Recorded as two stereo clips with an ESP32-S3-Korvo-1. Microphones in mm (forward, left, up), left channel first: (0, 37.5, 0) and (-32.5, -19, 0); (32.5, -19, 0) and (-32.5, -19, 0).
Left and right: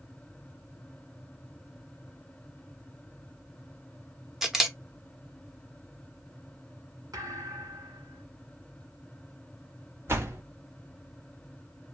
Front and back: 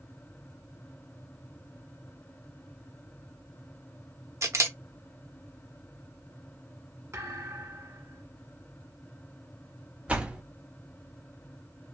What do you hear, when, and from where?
4.4 s a camera shutter: 155° left, 0.8 m
7.1 s a thud: 135° right, 1.4 m
10.1 s a door slam: 120° right, 0.9 m